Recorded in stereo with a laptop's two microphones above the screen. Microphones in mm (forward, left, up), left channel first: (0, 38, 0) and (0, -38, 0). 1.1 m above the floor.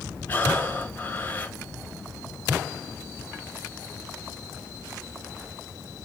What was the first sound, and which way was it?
Breathing, 25° left (ahead or behind).